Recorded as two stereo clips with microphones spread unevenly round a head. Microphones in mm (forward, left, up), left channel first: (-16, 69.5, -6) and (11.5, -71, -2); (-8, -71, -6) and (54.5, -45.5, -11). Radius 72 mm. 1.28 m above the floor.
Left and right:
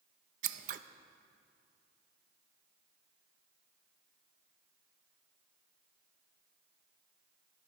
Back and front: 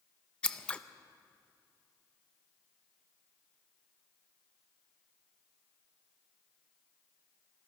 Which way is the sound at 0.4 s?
90° right.